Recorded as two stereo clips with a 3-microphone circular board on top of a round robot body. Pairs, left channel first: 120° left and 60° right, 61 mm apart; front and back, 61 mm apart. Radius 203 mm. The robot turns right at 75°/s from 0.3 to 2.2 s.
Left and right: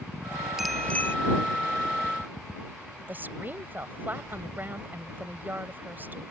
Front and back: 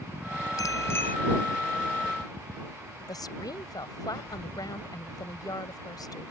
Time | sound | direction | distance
0.6 | a bicycle bell | 25° left | ?
3.1 | a woman speaking | straight ahead | ?